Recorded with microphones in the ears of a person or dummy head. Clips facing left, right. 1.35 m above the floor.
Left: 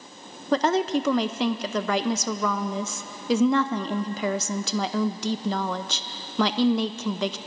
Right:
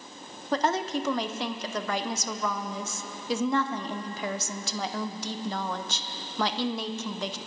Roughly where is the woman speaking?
Left.